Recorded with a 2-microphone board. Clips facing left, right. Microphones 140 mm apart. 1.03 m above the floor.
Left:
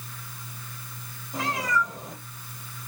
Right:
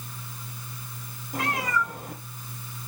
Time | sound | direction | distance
1.3 | a cat meowing | 55° right (ahead or behind) | 1.8 m